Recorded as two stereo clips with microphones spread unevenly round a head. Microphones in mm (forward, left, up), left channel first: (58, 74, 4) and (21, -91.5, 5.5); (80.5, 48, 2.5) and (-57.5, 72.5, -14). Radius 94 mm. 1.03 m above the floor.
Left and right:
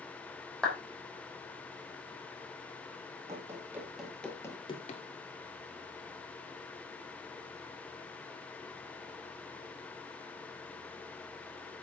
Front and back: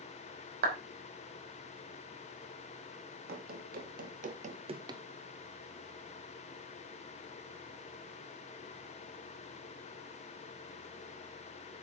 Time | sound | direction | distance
0.6 | a clap | 165° left | 3 m
3.3 | running footsteps | 175° right | 2.5 m